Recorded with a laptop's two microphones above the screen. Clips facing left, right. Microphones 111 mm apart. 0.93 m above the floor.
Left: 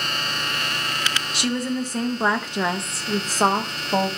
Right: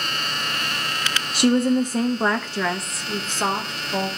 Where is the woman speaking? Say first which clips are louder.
Right 8 dB; 40° right (ahead or behind), 0.8 m; by 4.1 s 45° left (ahead or behind), 1.5 m.